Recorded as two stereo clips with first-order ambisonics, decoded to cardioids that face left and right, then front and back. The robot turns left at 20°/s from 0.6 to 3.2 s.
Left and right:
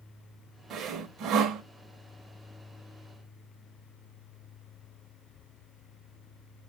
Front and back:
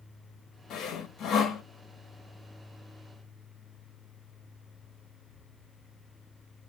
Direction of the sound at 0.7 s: 40° right.